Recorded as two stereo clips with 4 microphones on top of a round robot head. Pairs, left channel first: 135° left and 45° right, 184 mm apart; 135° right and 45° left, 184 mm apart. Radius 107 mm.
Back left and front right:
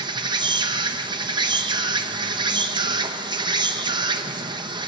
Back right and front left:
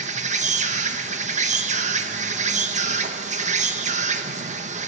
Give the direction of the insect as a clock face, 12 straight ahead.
12 o'clock.